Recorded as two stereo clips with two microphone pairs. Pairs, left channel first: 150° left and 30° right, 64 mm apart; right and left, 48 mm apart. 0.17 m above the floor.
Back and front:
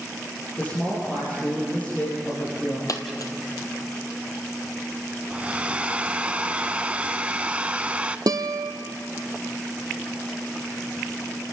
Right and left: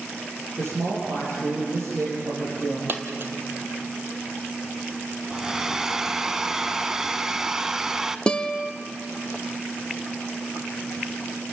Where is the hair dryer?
20° left, 0.6 m.